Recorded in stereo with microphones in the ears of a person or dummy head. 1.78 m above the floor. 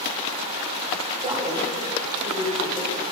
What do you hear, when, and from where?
1.2 s a woman speaking: 25° right (ahead or behind), 7 m